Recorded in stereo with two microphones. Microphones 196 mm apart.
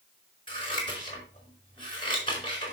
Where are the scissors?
25° left (ahead or behind), 4.5 m.